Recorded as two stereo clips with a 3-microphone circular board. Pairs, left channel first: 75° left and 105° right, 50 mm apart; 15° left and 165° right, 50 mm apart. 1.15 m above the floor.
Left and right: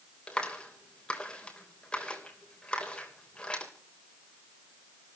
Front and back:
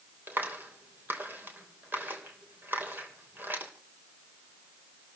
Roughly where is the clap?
Behind left.